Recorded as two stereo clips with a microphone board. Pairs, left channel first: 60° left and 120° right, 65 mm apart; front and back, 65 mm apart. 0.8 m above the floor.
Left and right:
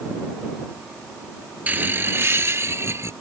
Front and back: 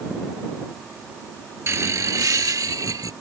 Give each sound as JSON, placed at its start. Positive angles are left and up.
{"t": 1.7, "sound": "laughter", "azimuth_deg": -170}